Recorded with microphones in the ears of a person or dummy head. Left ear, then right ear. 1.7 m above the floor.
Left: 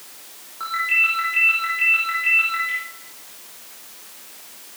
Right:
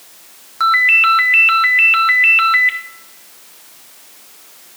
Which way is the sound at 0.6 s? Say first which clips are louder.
Right 9 dB; 55° right (ahead or behind).